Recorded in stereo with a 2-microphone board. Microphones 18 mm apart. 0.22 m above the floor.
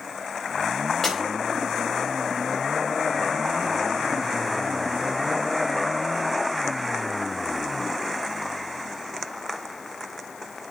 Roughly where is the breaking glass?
Centre.